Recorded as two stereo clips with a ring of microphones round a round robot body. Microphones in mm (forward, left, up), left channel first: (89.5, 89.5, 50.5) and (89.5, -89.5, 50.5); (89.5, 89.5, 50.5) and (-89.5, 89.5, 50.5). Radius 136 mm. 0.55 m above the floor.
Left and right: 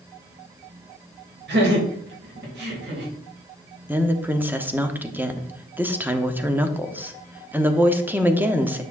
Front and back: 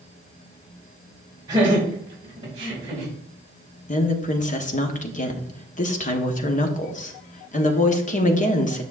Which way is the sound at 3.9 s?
15° right.